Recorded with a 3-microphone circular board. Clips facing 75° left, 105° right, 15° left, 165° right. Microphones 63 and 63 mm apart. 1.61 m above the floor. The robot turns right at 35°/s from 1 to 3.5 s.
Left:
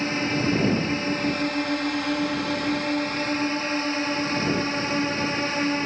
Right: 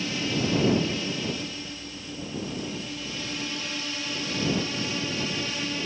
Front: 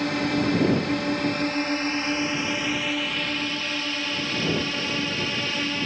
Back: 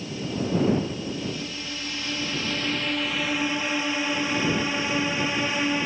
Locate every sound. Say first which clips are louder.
0.0 s a drone: left 4 dB, front 6 dB; 30° left; by 5.9 s 120° left